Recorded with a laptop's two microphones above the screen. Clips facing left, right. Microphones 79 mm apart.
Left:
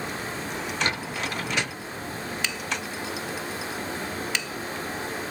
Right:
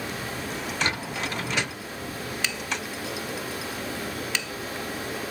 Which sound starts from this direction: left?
Running water, at 0.0 s.